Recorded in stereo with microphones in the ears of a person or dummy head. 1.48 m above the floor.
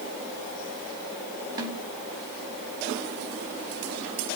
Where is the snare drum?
20° right (ahead or behind), 4 m.